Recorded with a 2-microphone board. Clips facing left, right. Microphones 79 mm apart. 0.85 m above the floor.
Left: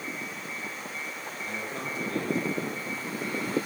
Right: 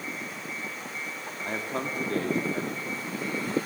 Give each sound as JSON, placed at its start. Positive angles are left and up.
{"t": 1.4, "sound": "a man speaking", "side_deg": -50, "distance_m": 2.0}